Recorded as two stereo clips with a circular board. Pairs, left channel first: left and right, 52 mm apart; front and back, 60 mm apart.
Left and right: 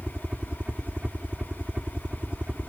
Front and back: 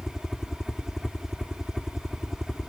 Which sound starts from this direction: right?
A helicopter, at 0.0 s.